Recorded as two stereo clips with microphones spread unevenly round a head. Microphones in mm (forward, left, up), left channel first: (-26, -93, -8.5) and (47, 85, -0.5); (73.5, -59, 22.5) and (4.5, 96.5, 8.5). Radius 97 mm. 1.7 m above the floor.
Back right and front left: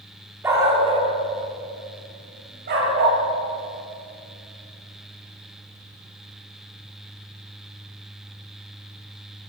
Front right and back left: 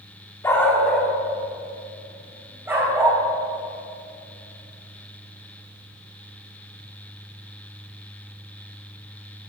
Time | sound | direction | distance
0.4 | a dog barking | 5° right | 1.6 m